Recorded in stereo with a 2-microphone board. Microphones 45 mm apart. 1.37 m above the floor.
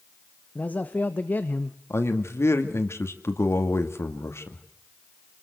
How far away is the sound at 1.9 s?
About 2.5 m.